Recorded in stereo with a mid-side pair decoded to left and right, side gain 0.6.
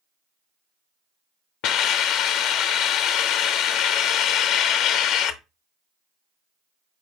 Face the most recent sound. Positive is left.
turn(degrees=70)